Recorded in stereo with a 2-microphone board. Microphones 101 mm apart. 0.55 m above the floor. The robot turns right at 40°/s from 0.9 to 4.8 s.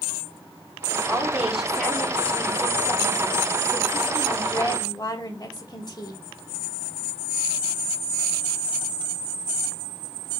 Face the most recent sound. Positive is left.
turn(degrees=125)